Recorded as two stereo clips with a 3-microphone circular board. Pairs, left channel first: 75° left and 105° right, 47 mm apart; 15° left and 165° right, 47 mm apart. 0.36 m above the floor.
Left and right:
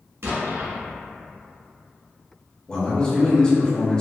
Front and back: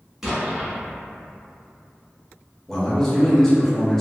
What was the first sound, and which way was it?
An explosion, 85° right.